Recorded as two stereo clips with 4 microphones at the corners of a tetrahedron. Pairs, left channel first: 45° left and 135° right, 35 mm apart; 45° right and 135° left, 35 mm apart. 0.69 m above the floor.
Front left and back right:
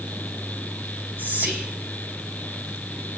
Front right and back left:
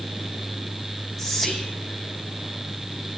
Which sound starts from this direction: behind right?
Whispering, at 1.2 s.